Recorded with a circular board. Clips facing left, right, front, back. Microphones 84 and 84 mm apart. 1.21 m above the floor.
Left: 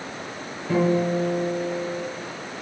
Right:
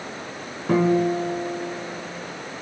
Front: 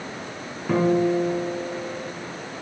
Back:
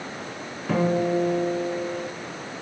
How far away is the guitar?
About 3 m.